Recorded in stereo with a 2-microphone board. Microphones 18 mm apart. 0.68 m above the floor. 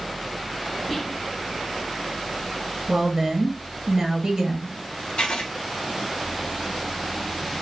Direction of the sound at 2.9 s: 40° right (ahead or behind).